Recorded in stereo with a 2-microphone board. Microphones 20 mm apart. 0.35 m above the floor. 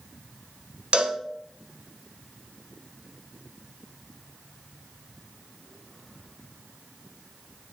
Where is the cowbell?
65° right (ahead or behind), 0.6 m.